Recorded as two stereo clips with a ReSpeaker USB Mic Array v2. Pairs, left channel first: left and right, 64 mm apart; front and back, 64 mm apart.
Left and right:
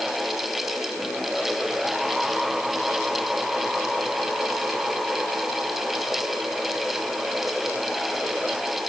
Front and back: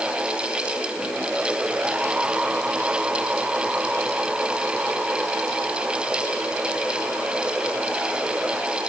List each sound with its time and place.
Only background noise.